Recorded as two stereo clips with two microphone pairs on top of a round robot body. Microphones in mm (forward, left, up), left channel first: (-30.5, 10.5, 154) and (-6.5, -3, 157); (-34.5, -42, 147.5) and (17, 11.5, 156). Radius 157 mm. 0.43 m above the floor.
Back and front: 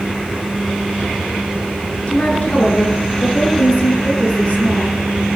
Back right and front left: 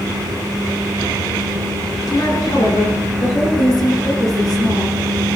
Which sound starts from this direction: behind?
A woman speaking, at 2.1 s.